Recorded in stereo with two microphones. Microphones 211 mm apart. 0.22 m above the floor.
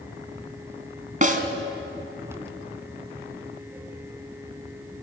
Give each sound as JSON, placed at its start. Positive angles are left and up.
{"t": 1.2, "sound": "a snare drum", "side_deg": -40, "distance_m": 1.8}